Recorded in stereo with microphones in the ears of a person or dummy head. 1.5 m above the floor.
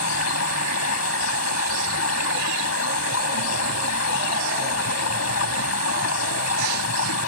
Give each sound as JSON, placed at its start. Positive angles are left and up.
{"t": 0.0, "sound": "running water", "side_deg": 85}